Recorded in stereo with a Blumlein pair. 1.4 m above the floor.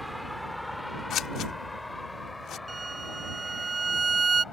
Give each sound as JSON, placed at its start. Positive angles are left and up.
{"t": 0.0, "sound": "a vehicle", "azimuth_deg": 0}
{"t": 1.1, "sound": "scissors", "azimuth_deg": 30}
{"t": 2.7, "sound": "a violin", "azimuth_deg": -10}